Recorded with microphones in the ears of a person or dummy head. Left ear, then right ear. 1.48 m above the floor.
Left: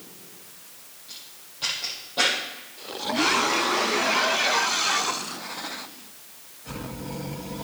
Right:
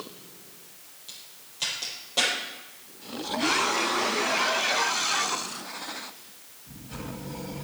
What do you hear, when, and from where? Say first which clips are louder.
1.1 s a crack: left 2 dB; 80° right, 6.5 m